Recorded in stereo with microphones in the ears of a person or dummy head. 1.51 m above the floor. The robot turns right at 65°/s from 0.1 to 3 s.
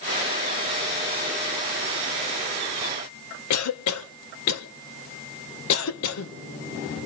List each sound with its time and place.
3.5 s a cough: 80° left, 1.7 m